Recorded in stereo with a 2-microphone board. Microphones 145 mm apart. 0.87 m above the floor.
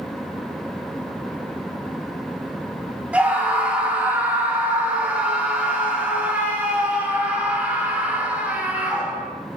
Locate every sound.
3.1 s a scream: 10° right (ahead or behind), 6 m